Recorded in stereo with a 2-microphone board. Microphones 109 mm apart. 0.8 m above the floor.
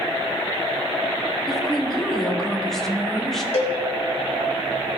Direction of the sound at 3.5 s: 70° left (ahead or behind).